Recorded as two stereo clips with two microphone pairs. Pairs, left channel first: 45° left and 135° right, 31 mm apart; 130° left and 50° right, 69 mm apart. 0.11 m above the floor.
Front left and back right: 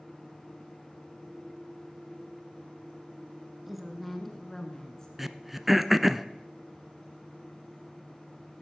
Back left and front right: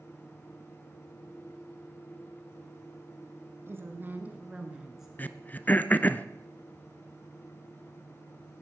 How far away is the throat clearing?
About 0.6 m.